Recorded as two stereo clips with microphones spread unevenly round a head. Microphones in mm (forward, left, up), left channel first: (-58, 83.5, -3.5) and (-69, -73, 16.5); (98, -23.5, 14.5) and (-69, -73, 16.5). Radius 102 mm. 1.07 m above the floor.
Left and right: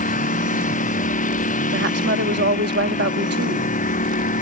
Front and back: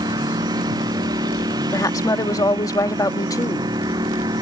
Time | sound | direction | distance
0.0 | a lawn mower | 125° left | ?
1.7 | a woman speaking | 55° right | ?